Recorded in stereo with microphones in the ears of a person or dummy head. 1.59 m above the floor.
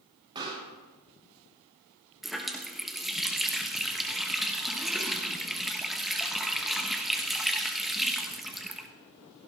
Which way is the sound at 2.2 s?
Centre (ahead or behind).